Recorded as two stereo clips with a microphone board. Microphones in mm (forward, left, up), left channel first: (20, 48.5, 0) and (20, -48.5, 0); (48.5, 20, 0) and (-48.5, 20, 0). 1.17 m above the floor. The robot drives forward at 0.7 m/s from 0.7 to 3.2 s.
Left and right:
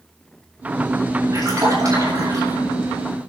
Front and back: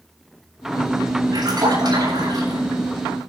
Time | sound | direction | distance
1.3 | a splash | 140° right | 8 m